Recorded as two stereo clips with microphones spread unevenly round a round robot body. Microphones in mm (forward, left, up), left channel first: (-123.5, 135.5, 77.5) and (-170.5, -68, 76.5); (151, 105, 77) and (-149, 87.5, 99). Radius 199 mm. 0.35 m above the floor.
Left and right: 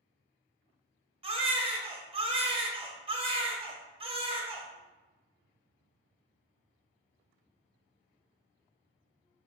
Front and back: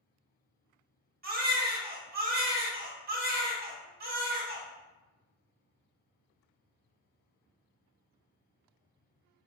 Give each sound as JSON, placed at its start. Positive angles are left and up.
{"t": 1.2, "sound": "a baby crying", "azimuth_deg": -140, "distance_m": 0.9}